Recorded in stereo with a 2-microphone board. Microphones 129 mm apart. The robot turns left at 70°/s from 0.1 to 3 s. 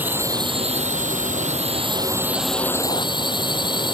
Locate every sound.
0.0 s a drone: 15° right; by 4.0 s 145° left